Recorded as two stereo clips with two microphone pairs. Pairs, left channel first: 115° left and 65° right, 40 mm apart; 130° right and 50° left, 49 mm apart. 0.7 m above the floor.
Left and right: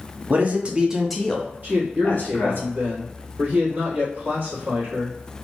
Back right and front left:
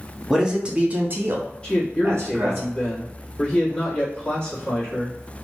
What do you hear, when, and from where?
0.3 s a man speaking: 25° right, 0.8 m; by 2.6 s 80° left, 1.2 m
1.6 s a man speaking: 65° right, 1.4 m